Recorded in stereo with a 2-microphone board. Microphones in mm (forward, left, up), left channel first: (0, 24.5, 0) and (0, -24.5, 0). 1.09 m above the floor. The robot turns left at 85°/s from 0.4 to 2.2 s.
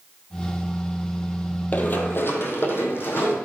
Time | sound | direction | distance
1.7 | running footsteps | 35° left (ahead or behind) | 1.5 m